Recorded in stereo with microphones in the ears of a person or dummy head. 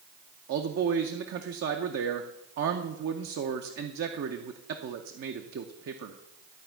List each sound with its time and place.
0.5 s a man speaking: 60° right (ahead or behind), 0.5 m